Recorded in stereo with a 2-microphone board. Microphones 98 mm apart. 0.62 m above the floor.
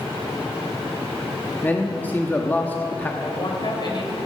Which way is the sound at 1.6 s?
20° left (ahead or behind).